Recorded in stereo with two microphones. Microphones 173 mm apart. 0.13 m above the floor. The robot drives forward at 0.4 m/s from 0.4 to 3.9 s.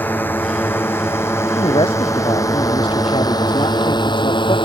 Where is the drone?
10° left (ahead or behind); by 4.7 s 25° left (ahead or behind).